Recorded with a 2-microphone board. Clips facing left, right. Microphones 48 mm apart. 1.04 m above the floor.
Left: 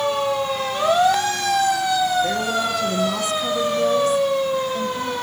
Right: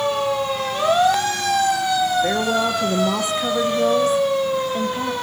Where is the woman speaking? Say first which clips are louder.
Right 2 dB; 30° right (ahead or behind), 0.7 m.